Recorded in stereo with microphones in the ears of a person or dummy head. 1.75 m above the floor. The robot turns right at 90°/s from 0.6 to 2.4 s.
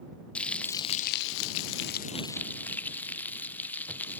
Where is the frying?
5° left; by 4.2 s 165° left.